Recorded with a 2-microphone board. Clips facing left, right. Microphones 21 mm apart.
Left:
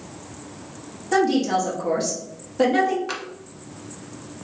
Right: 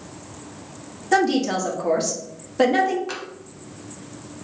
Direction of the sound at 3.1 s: 10° left (ahead or behind).